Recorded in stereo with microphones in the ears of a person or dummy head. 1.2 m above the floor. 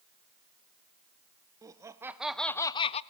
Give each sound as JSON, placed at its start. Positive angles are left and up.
{"t": 1.6, "sound": "laughter", "side_deg": -15, "distance_m": 0.9}